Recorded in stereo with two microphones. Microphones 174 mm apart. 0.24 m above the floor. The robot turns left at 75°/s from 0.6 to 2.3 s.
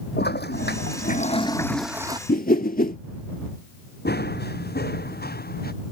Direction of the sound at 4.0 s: 80° left.